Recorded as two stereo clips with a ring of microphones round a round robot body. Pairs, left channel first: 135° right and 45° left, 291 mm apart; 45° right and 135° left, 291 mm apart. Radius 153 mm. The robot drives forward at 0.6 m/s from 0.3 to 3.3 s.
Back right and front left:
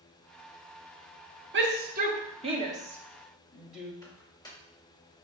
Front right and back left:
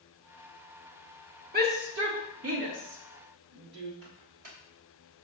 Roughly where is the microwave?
Behind left.